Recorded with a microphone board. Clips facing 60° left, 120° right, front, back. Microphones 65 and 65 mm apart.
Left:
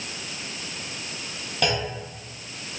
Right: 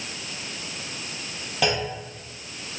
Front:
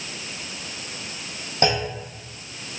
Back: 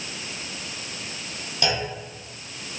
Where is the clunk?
35° right, 0.8 m.